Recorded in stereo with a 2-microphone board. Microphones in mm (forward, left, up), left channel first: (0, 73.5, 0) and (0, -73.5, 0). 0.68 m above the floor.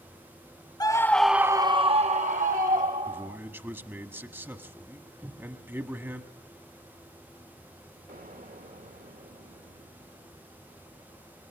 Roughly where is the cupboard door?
Centre.